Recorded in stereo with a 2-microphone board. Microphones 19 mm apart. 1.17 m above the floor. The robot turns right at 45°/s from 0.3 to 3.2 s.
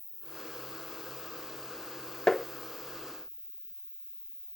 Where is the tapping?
25° left (ahead or behind), 0.7 m; by 2.5 s 30° left (ahead or behind), 0.7 m.